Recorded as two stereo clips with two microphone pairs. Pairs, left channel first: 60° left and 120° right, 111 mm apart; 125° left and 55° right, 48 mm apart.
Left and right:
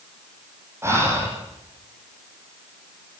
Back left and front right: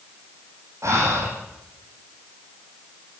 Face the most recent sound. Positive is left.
turn(degrees=-50)